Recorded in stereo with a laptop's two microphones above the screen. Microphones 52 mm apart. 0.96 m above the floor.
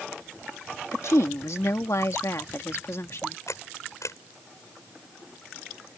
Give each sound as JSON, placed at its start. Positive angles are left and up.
{"t": 0.9, "sound": "a woman speaking", "side_deg": 65}
{"t": 3.5, "sound": "a camera shutter", "side_deg": 80}